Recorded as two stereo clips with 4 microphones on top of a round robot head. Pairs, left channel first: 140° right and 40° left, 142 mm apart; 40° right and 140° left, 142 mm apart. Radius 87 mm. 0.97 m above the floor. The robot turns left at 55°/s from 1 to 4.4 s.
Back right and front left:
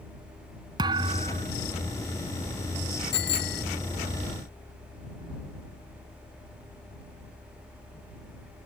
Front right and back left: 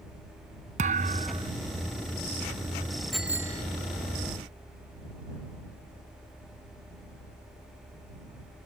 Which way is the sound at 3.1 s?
130° right.